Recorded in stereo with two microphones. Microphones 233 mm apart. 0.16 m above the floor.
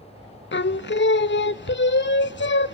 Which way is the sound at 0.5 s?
50° left (ahead or behind).